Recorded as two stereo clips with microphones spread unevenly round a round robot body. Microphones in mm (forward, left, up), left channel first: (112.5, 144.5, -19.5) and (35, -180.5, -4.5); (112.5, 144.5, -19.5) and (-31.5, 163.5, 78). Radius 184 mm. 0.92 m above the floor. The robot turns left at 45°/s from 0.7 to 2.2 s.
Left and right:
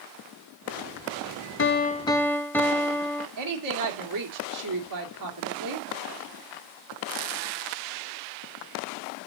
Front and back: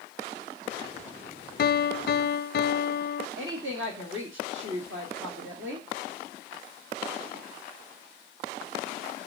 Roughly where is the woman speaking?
Behind right.